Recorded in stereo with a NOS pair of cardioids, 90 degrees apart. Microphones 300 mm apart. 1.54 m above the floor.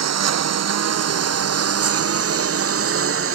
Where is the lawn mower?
60° right; by 3.4 s 45° right.